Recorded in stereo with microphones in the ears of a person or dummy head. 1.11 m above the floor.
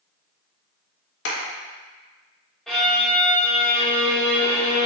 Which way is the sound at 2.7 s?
5° left (ahead or behind).